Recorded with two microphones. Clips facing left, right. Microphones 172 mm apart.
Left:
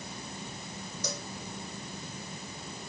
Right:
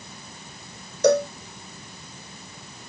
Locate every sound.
1.0 s a cowbell: 70° right (ahead or behind)